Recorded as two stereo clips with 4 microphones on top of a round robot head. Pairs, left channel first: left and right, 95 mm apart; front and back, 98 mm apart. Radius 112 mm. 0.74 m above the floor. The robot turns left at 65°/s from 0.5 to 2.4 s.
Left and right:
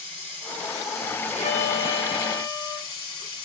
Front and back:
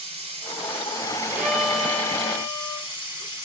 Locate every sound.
0.0 s running water: 170° left, 3.5 m; by 3.4 s 50° left, 3.5 m
1.3 s a violin: 105° left, 2 m; by 2.9 s 40° left, 2 m